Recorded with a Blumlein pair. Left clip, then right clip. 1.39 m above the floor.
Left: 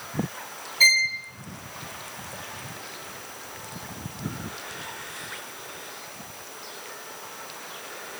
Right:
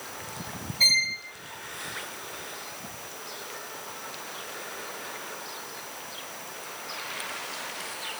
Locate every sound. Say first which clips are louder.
0.8 s a violin: left 3 dB; 20° left, 1.3 m